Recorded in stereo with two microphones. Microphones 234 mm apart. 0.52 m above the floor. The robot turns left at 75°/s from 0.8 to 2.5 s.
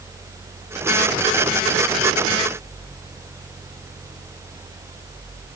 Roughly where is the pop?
No pop in this recording.